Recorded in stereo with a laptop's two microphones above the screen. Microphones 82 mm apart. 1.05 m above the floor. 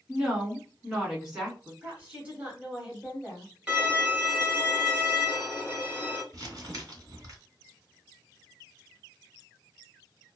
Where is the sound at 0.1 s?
10° right (ahead or behind), 1.1 m.